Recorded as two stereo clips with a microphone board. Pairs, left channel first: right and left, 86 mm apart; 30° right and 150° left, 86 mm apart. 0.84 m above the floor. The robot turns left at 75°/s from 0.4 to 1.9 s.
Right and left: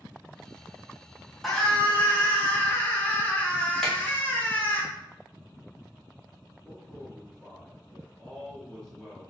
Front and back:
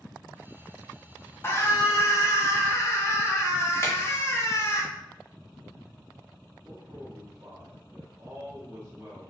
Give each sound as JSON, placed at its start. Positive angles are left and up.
{"t": 1.4, "sound": "a scream", "azimuth_deg": 0, "distance_m": 0.7}
{"t": 3.8, "sound": "a finger snap", "azimuth_deg": -5, "distance_m": 0.9}
{"t": 6.7, "sound": "a man speaking", "azimuth_deg": -175, "distance_m": 1.2}